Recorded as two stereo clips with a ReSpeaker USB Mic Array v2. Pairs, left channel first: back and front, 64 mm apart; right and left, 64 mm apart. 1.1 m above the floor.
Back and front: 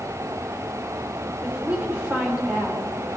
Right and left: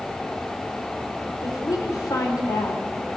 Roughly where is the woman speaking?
Ahead right.